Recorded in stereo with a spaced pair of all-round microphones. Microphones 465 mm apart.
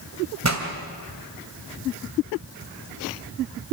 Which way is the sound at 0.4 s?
35° right (ahead or behind).